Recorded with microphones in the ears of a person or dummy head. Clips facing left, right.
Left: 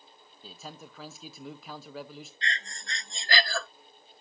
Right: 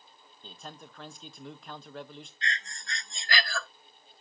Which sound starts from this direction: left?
Breathing, at 2.4 s.